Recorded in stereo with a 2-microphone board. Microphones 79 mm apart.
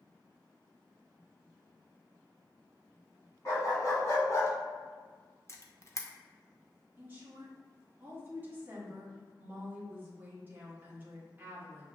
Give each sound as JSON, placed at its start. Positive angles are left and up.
{"t": 3.5, "sound": "a dog barking", "side_deg": 45, "distance_m": 1.6}
{"t": 5.5, "sound": "a camera shutter", "side_deg": 40, "distance_m": 0.6}
{"t": 7.0, "sound": "a woman speaking", "side_deg": -25, "distance_m": 1.2}